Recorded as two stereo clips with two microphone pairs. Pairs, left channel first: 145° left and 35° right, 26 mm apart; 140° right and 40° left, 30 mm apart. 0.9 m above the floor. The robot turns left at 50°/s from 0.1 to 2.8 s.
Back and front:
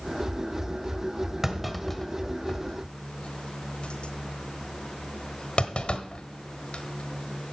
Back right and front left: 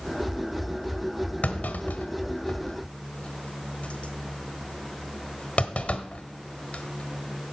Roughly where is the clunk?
Right.